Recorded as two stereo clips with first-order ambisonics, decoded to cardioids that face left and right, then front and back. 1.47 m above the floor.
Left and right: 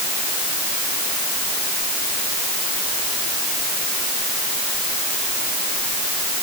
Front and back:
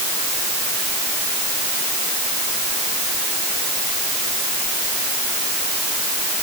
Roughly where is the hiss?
No hiss in this recording.